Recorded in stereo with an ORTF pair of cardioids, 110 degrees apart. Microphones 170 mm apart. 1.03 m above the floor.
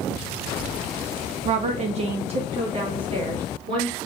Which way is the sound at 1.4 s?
45° right.